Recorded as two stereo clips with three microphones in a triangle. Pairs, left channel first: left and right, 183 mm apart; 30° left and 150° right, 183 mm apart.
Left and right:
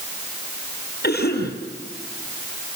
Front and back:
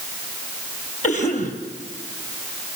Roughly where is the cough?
Left.